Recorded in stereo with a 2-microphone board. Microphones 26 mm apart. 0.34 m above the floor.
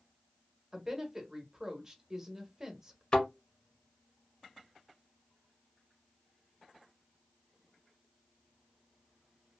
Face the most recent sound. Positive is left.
turn(degrees=40)  # may be behind; listen again after turning